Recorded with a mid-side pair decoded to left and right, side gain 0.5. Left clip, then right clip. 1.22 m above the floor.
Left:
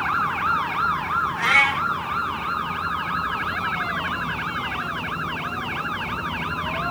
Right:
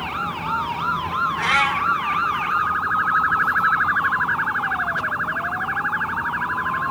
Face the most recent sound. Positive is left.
turn(degrees=-10)